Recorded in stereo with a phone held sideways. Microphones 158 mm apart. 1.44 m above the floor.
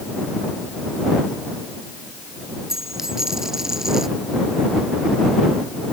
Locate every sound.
2.7 s a dropped coin: 5° right (ahead or behind)